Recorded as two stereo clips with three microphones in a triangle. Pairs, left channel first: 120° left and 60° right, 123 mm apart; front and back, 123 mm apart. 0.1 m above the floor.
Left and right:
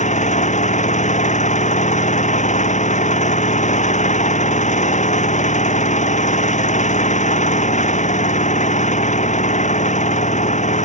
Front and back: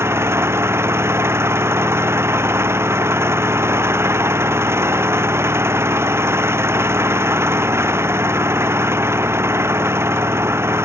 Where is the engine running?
110° left.